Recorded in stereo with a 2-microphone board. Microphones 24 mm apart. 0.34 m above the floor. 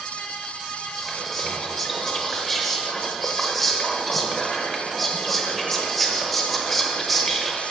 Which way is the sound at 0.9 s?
5° left (ahead or behind).